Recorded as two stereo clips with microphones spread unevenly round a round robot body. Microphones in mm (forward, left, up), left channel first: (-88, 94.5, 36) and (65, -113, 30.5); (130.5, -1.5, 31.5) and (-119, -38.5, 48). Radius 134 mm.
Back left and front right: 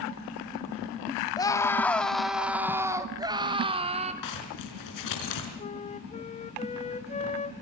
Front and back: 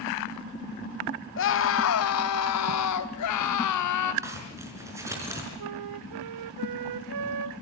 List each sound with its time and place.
1.4 s a scream: 50° left, 2.0 m; by 4.1 s 15° left, 3 m
4.2 s a zipper: 110° left, 5.5 m
5.6 s a flute: 165° right, 0.8 m